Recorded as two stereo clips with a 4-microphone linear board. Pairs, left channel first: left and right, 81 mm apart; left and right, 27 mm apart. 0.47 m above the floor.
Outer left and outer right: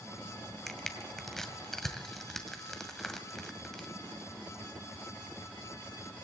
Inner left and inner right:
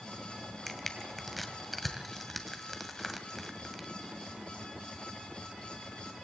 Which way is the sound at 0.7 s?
5° left (ahead or behind).